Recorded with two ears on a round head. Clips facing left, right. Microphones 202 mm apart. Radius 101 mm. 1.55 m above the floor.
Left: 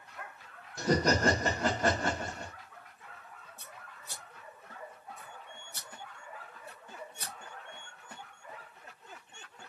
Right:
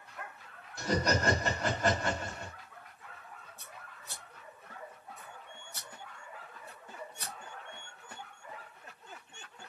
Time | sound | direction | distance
0.8 | laughter | 70° left (ahead or behind) | 0.9 m
3.6 | scissors | 25° left (ahead or behind) | 1.5 m